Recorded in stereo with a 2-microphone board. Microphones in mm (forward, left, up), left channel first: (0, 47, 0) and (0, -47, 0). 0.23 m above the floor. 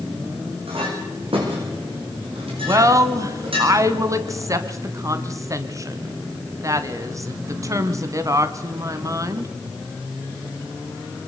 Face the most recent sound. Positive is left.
turn(degrees=-35)  # may be behind; listen again after turning